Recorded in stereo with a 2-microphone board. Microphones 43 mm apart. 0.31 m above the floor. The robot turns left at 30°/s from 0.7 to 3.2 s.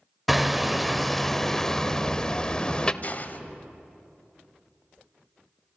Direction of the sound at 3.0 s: 35° left (ahead or behind).